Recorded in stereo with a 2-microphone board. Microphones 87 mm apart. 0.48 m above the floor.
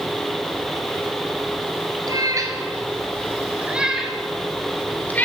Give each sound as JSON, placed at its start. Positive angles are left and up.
{"t": 2.1, "sound": "a cat meowing", "side_deg": -45, "distance_m": 2.0}